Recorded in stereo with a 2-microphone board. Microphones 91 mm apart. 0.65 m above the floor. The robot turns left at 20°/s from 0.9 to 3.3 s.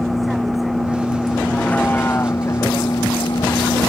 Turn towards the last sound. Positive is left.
turn(degrees=135)